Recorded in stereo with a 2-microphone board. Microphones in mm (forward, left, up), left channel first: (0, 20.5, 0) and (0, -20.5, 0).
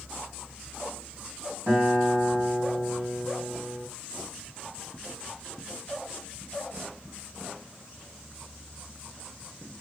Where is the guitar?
55° right (ahead or behind), 2 m.